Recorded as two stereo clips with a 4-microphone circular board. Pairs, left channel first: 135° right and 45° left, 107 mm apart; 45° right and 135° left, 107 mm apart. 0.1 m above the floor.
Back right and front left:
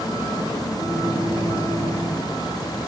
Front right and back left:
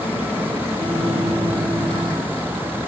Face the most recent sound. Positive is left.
turn(degrees=170)